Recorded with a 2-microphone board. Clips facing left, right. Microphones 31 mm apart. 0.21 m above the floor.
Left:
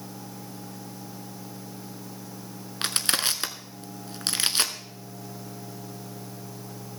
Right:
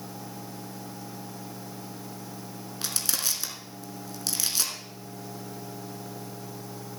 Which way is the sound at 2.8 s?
50° left (ahead or behind).